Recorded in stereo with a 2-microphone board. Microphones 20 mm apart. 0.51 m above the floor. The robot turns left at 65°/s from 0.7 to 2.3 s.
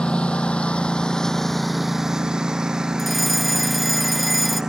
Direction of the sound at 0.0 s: 60° left (ahead or behind).